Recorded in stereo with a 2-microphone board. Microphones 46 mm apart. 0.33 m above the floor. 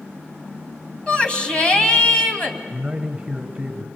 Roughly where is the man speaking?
Centre.